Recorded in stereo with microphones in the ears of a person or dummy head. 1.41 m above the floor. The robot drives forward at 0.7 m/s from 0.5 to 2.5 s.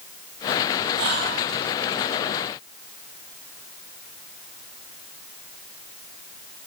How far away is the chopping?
No chopping in this recording.